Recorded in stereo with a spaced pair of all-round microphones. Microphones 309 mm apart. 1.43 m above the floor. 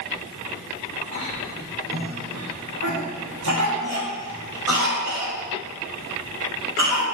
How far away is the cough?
About 3.5 m.